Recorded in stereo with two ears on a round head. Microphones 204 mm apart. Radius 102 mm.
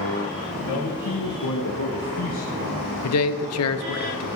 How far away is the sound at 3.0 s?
About 0.9 m.